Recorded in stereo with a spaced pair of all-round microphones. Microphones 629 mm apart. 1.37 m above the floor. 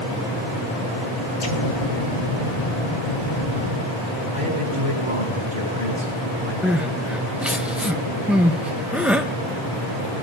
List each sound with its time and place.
1.4 s an explosion: 45° left (ahead or behind), 1.5 m
4.3 s a man speaking: 60° right (ahead or behind), 4.5 m
6.6 s crying: centre (ahead or behind), 0.5 m